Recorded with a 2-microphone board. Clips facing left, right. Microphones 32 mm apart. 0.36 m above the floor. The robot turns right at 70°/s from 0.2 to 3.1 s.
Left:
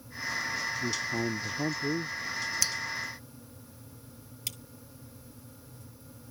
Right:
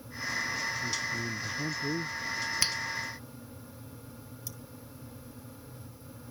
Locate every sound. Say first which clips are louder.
0.8 s a man speaking: left 2 dB; 85° left; by 2.2 s straight behind
2.6 s a finger snap: right 2 dB; 30° right (ahead or behind); by 2.8 s 20° right (ahead or behind)
4.5 s cutlery clinking: left 9 dB; 60° left (ahead or behind)